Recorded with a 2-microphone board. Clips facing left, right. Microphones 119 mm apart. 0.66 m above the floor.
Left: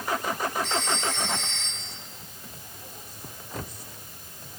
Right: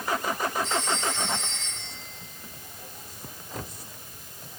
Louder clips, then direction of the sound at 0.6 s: Even; 80° left.